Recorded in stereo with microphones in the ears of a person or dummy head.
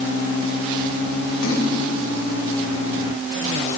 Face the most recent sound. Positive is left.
turn(degrees=70)  # may be behind; listen again after turning